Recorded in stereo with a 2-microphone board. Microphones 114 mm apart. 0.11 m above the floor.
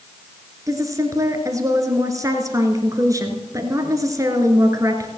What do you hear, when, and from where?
0.7 s a woman speaking: 30° right (ahead or behind), 1.5 m